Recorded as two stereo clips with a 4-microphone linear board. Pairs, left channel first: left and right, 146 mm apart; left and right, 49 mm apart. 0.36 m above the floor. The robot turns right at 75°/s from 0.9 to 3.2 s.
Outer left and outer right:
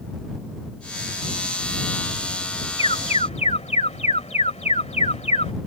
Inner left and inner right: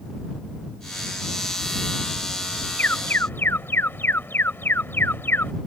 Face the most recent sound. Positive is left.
turn(degrees=85)